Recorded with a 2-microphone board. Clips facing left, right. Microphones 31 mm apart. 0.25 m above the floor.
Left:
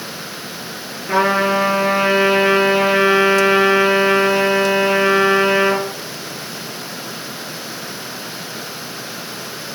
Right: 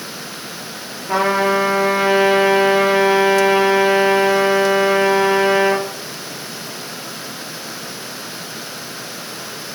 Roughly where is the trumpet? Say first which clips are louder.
Left 1 dB; centre.